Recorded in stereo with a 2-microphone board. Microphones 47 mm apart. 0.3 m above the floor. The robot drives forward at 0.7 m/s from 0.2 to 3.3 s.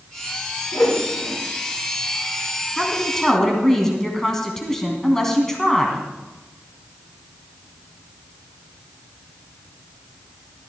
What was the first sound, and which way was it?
A whoosh, 75° left (ahead or behind).